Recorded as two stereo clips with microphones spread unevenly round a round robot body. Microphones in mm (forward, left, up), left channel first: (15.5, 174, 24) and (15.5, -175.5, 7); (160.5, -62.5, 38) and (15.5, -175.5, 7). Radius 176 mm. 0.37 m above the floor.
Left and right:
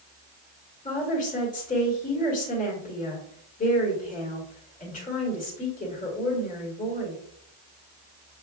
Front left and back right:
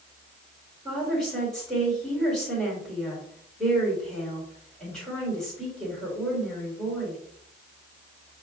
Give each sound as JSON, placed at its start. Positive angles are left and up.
{"t": 0.8, "sound": "a woman speaking", "azimuth_deg": 140, "distance_m": 1.6}